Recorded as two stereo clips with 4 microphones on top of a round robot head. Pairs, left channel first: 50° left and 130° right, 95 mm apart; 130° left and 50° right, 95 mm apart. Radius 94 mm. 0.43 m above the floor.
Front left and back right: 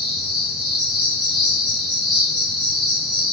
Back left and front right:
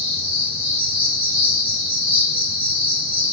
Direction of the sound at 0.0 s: 45° right.